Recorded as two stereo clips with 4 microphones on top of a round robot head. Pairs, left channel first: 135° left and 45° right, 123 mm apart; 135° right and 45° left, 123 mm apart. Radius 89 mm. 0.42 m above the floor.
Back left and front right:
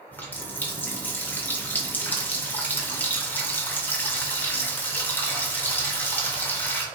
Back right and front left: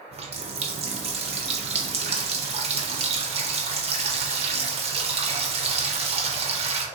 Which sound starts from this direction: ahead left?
A running tap, at 0.1 s.